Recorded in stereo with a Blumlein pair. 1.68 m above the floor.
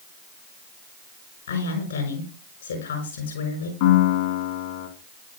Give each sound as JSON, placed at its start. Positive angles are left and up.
{"t": 1.5, "sound": "a woman speaking", "azimuth_deg": 65, "distance_m": 5.0}
{"t": 3.8, "sound": "a piano", "azimuth_deg": 50, "distance_m": 3.0}